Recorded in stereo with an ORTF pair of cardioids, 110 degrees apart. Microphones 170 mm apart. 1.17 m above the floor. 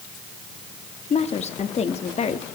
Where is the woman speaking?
40° left, 1.8 m.